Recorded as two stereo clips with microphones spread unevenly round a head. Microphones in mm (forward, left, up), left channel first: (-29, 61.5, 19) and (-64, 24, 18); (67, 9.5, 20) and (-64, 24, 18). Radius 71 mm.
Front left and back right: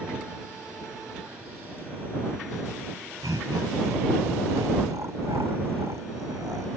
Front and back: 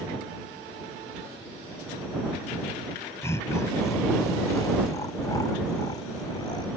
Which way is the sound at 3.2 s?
80° right.